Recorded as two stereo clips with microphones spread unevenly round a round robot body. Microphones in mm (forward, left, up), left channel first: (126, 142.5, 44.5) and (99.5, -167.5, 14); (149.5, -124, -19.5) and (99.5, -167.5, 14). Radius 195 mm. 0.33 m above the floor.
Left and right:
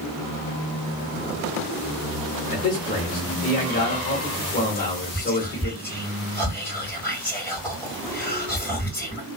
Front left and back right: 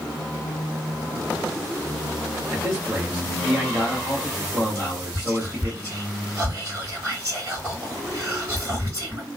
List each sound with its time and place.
2.5 s a man speaking: 105° left, 1.0 m
4.8 s whispering: 175° left, 1.6 m